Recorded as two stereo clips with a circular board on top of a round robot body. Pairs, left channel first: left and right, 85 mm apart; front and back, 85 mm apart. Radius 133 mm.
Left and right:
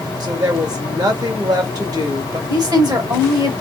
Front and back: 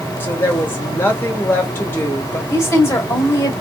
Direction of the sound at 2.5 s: 55° right.